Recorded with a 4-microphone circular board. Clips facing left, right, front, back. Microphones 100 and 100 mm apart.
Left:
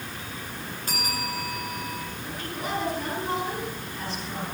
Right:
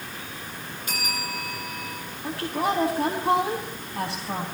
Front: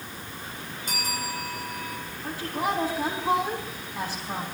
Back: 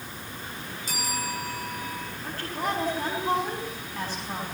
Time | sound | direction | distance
0.9 | a bell | 35° left | 5.5 m
2.2 | a woman speaking | 80° right | 5 m